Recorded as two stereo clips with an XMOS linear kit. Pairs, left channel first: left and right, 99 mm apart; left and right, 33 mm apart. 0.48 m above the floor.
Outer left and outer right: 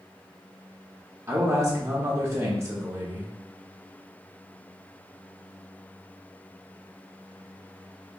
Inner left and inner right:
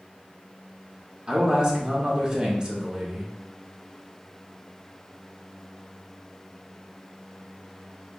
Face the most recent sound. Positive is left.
turn(degrees=-25)  # may be behind; listen again after turning